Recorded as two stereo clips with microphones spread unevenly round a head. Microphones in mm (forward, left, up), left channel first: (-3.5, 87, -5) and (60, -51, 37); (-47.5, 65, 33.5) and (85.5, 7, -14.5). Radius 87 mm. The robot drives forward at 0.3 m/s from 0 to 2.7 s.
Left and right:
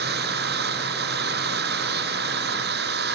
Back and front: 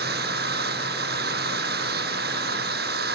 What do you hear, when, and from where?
0.0 s an engine running: 50° right